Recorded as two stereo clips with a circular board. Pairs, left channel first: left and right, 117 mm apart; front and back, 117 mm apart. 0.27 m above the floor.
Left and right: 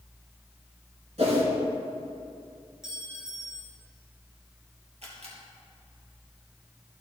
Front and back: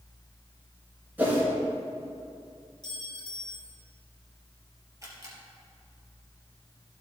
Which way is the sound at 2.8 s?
175° right.